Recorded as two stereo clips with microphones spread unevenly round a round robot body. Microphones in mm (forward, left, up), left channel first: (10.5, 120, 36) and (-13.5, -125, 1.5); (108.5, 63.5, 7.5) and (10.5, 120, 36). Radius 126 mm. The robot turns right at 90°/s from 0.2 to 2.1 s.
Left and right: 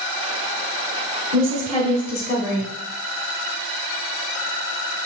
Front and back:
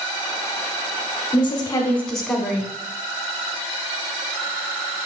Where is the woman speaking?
30° right, 1.1 m; by 2.7 s 40° left, 1.1 m.